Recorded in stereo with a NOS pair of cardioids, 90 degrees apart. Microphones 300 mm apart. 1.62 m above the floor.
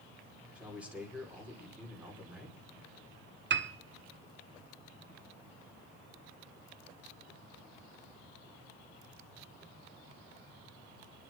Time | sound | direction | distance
0.6 | a man speaking | 5° right | 5.5 m
3.5 | a piano | 40° right | 1.1 m